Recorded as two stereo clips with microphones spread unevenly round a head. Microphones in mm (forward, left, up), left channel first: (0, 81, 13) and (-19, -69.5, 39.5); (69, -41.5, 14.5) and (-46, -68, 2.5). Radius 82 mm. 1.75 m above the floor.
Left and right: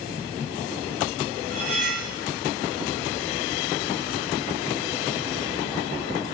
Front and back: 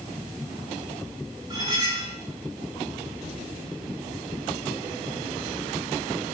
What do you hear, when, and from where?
1.5 s cutlery clinking: 115° right, 2.5 m